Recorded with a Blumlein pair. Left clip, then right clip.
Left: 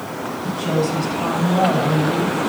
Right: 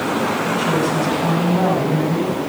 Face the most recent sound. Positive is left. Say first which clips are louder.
# right 3 dB
turn(degrees=55)